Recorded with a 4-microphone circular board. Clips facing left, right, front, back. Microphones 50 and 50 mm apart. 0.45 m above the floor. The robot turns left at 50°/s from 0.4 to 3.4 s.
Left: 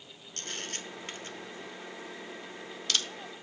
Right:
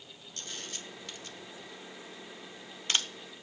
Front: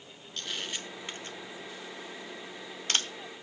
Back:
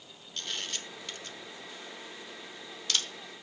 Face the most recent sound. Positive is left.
turn(degrees=-60)